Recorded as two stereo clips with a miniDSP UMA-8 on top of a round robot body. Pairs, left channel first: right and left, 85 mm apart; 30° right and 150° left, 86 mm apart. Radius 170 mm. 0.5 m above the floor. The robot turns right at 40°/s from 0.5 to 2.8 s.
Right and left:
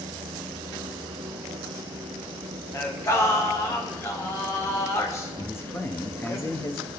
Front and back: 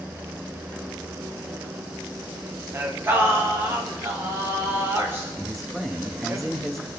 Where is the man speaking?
120° right, 1.1 m.